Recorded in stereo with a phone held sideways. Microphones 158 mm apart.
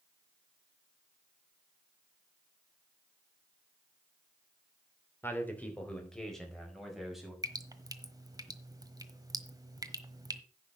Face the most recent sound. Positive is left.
turn(degrees=-25)  # may be behind; listen again after turning